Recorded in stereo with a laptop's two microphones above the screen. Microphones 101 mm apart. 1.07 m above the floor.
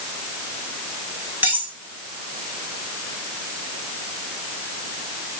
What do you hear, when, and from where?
1.4 s cutlery clinking: 15° right (ahead or behind), 3.5 m